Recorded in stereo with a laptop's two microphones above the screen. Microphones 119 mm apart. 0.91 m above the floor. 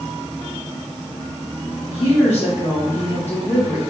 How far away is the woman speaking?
About 1.6 m.